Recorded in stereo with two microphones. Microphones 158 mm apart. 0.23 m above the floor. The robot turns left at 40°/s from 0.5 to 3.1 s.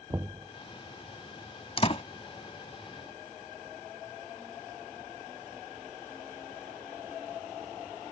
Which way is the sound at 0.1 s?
15° right (ahead or behind).